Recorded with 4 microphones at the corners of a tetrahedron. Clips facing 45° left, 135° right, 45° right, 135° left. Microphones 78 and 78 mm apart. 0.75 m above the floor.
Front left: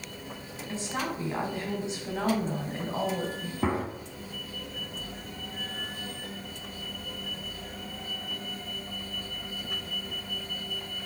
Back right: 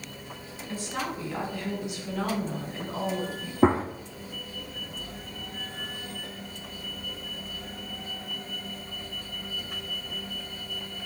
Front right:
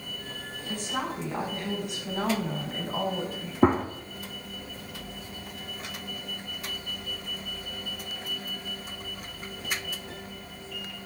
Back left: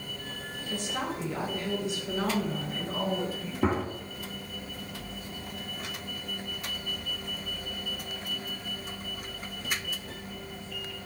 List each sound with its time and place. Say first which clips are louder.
0.7 s a woman speaking: even, front right 1 dB; 20° right, 5 m; by 3.5 s straight ahead, 3.5 m
3.6 s a gunshot: back right 7 dB, front right 6 dB; 85° right, 1.1 m